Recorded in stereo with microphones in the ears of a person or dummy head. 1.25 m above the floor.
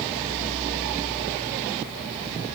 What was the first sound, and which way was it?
Only background noise.